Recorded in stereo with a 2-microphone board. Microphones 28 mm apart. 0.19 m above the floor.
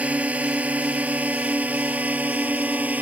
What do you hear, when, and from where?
0.0 s a drone: 55° right (ahead or behind); by 3.0 s 65° right (ahead or behind)